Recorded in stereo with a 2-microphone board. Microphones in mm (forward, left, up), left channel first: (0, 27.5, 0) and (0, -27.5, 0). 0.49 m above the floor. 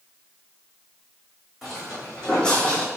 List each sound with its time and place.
1.6 s footsteps: 5° left (ahead or behind), 1.8 m; by 2.9 s 30° left (ahead or behind), 0.8 m